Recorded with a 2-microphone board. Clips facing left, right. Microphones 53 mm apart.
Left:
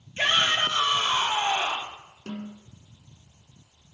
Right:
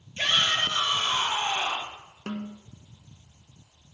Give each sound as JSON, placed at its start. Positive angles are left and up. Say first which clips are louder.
{"t": 0.2, "sound": "a shout", "louder": "left 2 dB", "side_deg": 25, "distance_m": 4.0}
{"t": 2.3, "sound": "a snare drum", "louder": "right 2 dB", "side_deg": -40, "distance_m": 1.4}